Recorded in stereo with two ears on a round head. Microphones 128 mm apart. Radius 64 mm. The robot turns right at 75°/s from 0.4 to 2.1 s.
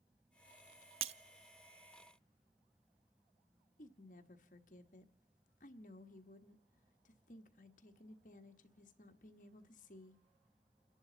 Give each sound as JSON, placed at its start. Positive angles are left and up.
{"t": 1.0, "sound": "breaking glass", "side_deg": -40, "distance_m": 0.6}
{"t": 3.8, "sound": "a woman speaking", "side_deg": 60, "distance_m": 1.3}